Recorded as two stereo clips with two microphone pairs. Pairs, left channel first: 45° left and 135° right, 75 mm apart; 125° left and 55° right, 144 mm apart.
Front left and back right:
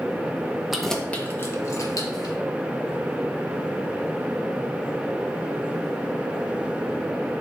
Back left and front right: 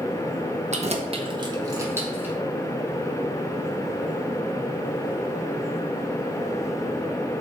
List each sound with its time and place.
0.7 s keys jangling: 45° right, 0.9 m; by 2.4 s 25° left, 1.5 m